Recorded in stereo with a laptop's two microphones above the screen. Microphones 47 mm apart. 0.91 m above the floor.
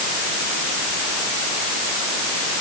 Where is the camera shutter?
I don't hear a camera shutter.